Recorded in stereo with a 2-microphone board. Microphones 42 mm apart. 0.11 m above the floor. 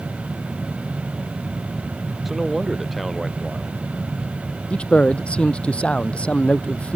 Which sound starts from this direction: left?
A man speaking, at 4.7 s.